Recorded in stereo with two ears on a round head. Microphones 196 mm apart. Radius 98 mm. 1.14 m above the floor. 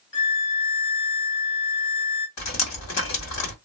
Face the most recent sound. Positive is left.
turn(degrees=80)